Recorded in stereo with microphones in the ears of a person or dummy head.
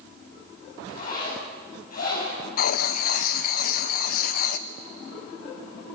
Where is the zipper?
50° left (ahead or behind), 7.5 m.